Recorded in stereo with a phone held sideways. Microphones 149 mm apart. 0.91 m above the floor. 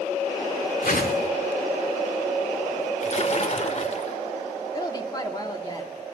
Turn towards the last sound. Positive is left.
turn(degrees=30)  # may be behind; listen again after turning